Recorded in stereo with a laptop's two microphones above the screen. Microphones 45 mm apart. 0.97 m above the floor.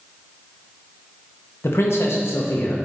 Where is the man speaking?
70° left (ahead or behind), 0.9 m.